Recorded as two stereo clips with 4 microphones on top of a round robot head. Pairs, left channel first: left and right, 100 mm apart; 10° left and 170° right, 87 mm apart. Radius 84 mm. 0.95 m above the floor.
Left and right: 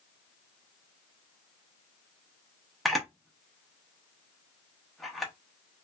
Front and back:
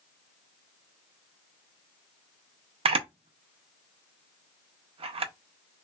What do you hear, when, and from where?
2.9 s a camera shutter: straight behind, 0.6 m